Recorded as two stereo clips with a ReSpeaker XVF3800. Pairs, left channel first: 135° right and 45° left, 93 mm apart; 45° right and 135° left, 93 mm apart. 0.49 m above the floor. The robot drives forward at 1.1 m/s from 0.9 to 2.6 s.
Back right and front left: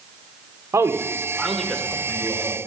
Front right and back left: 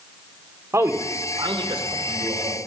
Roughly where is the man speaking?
Left.